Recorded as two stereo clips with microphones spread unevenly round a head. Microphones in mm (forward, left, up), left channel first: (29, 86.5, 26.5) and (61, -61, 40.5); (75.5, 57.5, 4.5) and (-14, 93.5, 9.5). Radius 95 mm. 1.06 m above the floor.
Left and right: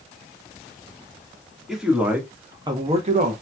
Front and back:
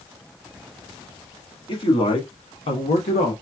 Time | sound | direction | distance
1.7 | a man speaking | 10° left | 1.7 m